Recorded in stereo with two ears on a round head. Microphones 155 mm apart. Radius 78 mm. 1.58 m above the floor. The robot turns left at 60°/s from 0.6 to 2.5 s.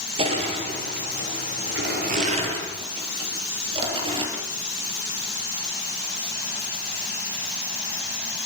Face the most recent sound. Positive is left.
turn(degrees=-30)  # may be behind; listen again after turning